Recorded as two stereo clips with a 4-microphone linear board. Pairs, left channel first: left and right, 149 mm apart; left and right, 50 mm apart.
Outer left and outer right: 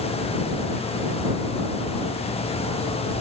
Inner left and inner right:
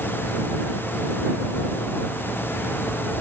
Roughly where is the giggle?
I don't hear a giggle.